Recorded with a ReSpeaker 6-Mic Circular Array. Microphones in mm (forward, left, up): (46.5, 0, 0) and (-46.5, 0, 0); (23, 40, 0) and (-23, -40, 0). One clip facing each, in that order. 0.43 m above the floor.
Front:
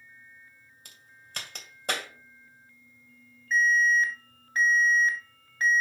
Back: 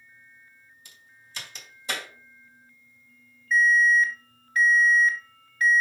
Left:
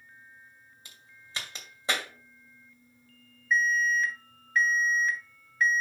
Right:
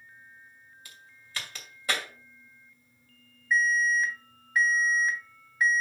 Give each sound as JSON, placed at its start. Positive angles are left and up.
{"t": 0.8, "sound": "a crack", "azimuth_deg": -5, "distance_m": 2.5}
{"t": 3.5, "sound": "an alarm", "azimuth_deg": -45, "distance_m": 3.0}